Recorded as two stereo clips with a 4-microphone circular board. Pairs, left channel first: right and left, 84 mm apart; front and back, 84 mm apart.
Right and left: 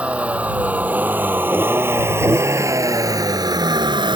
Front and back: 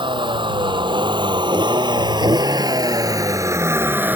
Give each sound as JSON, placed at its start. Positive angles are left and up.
{"t": 0.0, "sound": "a vehicle", "azimuth_deg": 165}